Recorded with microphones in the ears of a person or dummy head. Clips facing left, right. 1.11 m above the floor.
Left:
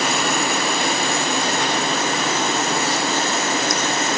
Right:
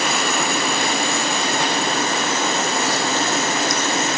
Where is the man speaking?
No man speaking in this recording.